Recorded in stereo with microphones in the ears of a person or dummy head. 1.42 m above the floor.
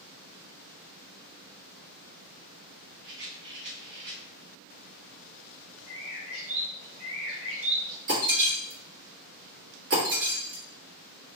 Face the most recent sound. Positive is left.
turn(degrees=-70)  # may be behind; listen again after turning